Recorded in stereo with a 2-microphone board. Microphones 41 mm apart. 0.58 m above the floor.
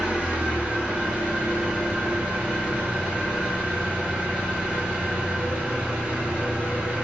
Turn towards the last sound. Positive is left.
turn(degrees=-25)  # may be behind; listen again after turning